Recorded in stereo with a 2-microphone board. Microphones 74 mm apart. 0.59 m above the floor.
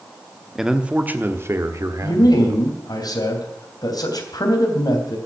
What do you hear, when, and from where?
0.6 s a man speaking: 5° right (ahead or behind), 1.0 m; by 2.7 s 60° right (ahead or behind), 1.8 m
2.0 s a man speaking: 65° left (ahead or behind), 3 m